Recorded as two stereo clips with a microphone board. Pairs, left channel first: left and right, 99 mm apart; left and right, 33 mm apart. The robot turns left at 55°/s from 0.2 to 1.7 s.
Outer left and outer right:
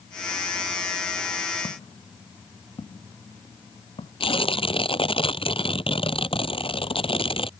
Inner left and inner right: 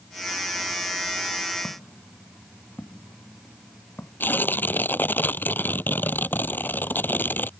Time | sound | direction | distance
1.6 | footsteps | 55° left (ahead or behind) | ?
4.2 | tearing paper | 65° left (ahead or behind) | ?